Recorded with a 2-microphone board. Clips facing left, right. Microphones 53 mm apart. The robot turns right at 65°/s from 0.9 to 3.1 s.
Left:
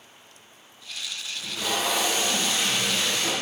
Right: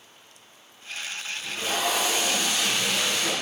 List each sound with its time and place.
1.4 s tape being pulled: 85° left, 2.5 m; by 3.3 s 165° right, 2.5 m